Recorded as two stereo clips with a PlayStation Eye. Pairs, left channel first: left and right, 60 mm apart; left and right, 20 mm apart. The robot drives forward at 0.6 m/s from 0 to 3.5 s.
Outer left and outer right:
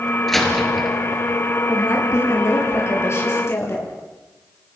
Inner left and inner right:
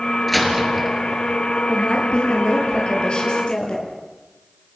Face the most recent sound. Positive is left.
turn(degrees=45)  # may be behind; listen again after turning